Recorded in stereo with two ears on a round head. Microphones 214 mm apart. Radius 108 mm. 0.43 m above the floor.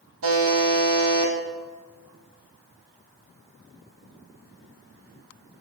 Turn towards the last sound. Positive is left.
turn(degrees=-60)  # may be behind; listen again after turning